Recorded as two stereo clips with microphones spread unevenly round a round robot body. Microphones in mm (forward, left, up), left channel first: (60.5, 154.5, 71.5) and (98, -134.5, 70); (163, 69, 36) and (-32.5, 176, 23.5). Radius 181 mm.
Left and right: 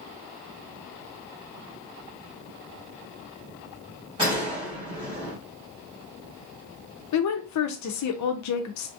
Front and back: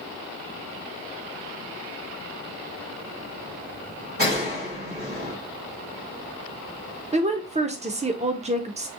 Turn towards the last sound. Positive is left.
turn(degrees=95)